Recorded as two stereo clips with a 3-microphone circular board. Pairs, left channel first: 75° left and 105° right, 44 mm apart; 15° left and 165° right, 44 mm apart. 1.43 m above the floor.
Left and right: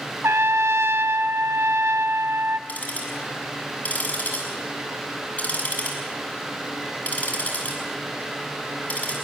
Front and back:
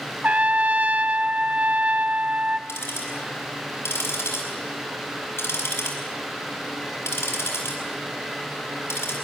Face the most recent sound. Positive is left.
turn(degrees=20)